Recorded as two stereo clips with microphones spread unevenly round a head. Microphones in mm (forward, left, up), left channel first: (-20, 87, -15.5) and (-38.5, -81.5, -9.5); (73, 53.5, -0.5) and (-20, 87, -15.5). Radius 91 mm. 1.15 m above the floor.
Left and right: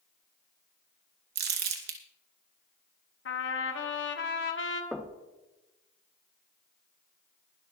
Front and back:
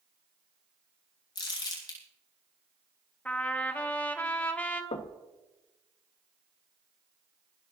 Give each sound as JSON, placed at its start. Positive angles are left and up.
{"t": 1.4, "sound": "crumpling", "azimuth_deg": -70, "distance_m": 2.5}
{"t": 3.2, "sound": "a trumpet", "azimuth_deg": 55, "distance_m": 1.5}
{"t": 4.9, "sound": "knocking", "azimuth_deg": -10, "distance_m": 1.0}